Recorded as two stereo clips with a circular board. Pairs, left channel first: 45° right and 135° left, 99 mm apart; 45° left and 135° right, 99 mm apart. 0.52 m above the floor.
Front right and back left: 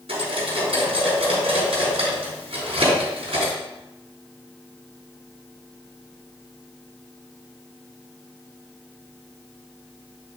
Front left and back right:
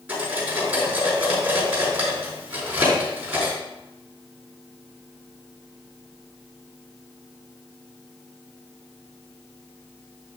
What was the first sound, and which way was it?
Cutlery clinking, 150° left.